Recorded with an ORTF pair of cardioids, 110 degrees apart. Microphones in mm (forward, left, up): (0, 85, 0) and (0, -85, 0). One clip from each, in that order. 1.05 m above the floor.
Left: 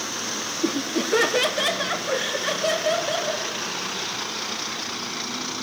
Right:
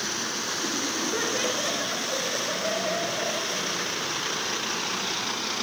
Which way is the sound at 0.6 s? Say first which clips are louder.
Left 6 dB; 60° left.